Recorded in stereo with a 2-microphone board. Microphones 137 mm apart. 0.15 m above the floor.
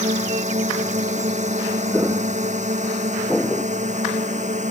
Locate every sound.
0.0 s a drone: 60° right (ahead or behind)
1.9 s footsteps: 15° right (ahead or behind); by 3.7 s 15° left (ahead or behind)